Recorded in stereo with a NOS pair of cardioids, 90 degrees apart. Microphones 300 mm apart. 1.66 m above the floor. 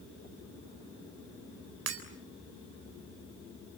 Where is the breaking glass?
60° right, 3.5 m.